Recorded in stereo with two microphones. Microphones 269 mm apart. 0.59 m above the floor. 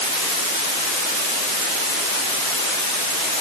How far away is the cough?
No cough in this recording.